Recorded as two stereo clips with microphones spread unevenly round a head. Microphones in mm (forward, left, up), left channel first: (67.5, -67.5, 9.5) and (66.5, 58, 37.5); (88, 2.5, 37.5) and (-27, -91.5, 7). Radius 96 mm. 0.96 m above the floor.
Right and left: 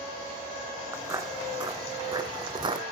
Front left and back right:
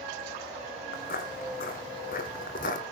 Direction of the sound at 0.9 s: 30° left.